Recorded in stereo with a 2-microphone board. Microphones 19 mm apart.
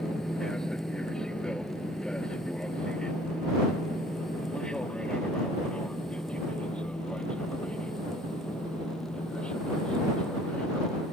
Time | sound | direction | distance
0.0 | an aircraft | 35° left (ahead or behind) | ?